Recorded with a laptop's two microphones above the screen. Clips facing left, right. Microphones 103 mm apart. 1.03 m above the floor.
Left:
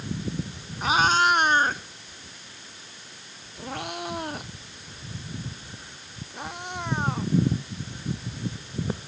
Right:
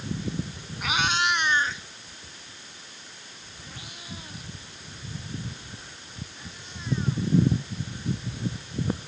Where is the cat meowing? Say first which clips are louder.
Left 5 dB; 35° left (ahead or behind); by 7.3 s 65° left (ahead or behind).